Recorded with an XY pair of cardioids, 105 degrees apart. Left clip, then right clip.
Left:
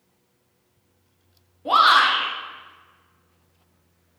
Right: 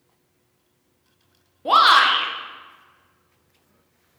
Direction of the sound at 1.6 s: 25° right.